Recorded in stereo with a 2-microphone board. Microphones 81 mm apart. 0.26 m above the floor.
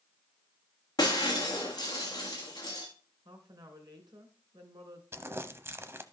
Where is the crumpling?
30° right (ahead or behind), 0.7 m.